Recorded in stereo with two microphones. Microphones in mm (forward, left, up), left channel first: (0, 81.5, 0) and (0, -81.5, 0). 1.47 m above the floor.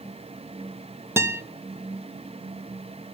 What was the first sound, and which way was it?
A guitar, 15° right (ahead or behind).